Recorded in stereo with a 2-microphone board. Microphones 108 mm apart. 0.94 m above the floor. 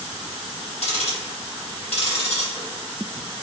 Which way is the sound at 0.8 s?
65° left (ahead or behind).